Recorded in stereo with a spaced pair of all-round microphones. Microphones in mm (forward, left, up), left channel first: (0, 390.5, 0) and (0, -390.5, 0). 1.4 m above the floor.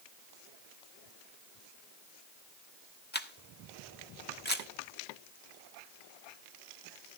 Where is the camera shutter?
15° left (ahead or behind), 1.1 m.